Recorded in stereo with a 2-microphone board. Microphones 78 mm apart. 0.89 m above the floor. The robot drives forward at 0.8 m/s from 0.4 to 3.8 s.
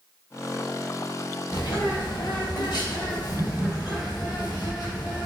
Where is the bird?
85° left, 3 m; by 5.3 s 65° left (ahead or behind), 3.5 m.